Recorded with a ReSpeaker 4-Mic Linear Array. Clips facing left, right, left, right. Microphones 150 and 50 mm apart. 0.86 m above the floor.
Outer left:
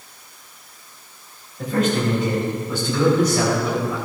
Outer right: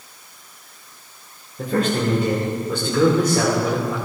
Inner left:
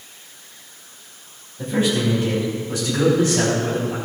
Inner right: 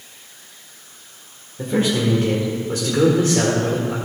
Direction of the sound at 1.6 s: 45° right (ahead or behind).